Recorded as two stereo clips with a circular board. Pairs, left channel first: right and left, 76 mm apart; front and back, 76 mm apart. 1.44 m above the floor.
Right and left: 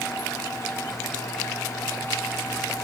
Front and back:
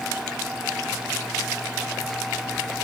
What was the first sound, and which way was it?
Only background noise.